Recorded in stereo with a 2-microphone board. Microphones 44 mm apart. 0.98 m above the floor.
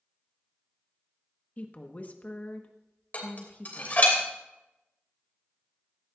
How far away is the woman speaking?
About 1.2 m.